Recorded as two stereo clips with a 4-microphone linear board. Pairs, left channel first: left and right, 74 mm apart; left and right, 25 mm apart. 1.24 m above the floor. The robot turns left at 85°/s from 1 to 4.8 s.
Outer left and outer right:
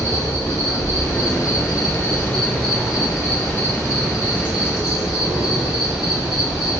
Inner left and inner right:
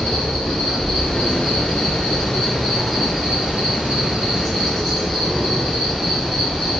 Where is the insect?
145° left, 1.4 m; by 6.8 s straight behind, 1.4 m.